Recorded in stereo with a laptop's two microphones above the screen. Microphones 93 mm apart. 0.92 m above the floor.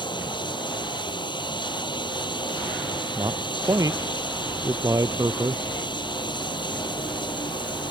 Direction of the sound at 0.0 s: 55° left (ahead or behind).